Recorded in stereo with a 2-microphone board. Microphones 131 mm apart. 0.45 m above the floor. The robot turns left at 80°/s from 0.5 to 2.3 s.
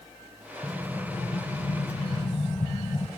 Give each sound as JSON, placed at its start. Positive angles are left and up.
{"t": 0.6, "sound": "an explosion", "azimuth_deg": -175, "distance_m": 1.3}